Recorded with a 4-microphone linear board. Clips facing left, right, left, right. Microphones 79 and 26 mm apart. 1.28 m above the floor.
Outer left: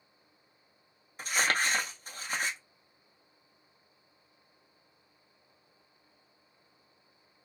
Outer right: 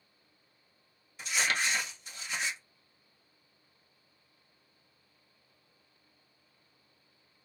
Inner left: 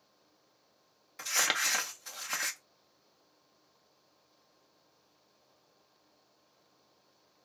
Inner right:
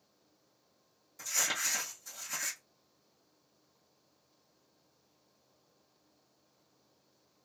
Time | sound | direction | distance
1.2 | crumpling | 45° left (ahead or behind) | 0.5 m